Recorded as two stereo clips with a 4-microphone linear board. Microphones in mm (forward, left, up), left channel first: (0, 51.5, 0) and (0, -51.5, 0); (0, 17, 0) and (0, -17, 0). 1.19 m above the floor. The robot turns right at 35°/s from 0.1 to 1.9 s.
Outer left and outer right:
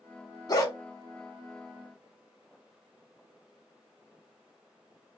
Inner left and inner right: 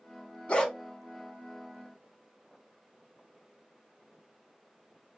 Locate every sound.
0.5 s a dog barking: 40° left (ahead or behind), 1.1 m; by 0.7 s 35° left (ahead or behind), 1.1 m